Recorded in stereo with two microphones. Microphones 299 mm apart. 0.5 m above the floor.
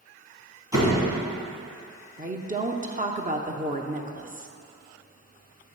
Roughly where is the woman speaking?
Right.